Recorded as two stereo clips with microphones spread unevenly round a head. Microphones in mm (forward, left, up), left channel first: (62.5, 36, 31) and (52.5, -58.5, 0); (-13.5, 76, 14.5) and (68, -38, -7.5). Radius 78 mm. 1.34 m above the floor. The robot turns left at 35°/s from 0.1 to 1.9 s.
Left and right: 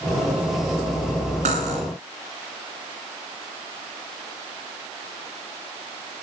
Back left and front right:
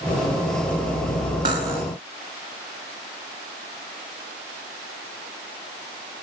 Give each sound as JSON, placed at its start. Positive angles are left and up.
{"t": 1.4, "sound": "cutlery clinking", "azimuth_deg": -120, "distance_m": 3.0}